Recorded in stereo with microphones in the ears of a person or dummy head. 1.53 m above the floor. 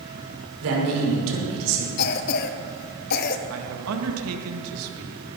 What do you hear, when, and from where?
0.6 s a man speaking: 80° right, 5.5 m
2.0 s a cough: 55° left (ahead or behind), 1.2 m
3.5 s a man speaking: 90° right, 2 m